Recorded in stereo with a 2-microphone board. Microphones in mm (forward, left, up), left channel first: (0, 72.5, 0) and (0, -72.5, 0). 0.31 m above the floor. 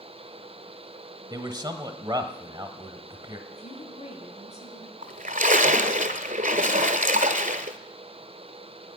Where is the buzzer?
No buzzer in this recording.